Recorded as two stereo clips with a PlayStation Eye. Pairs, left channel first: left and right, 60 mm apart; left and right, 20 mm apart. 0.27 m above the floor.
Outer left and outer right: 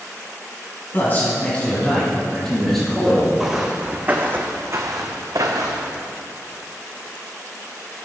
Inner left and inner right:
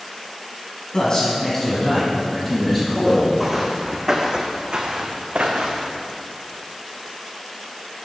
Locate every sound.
0.9 s a man speaking: 35° left (ahead or behind), 1.7 m; by 3.3 s centre (ahead or behind), 3 m
3.4 s footsteps: 5° right (ahead or behind), 1.0 m; by 6.0 s 75° right (ahead or behind), 1.3 m